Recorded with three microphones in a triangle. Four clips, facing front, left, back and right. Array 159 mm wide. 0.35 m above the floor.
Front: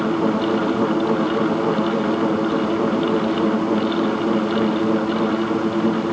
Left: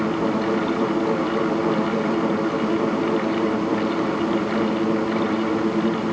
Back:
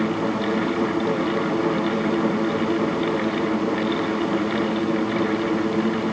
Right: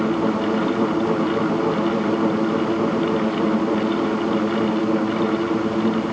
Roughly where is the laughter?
No laughter in this recording.